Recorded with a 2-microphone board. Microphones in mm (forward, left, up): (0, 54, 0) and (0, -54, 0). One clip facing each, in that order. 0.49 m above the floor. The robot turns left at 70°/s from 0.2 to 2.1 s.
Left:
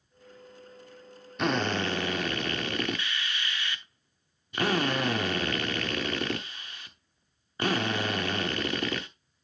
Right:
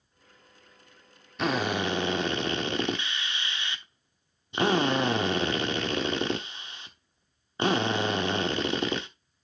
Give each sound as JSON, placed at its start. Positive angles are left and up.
{"t": 1.4, "sound": "a drill", "azimuth_deg": 0, "distance_m": 0.9}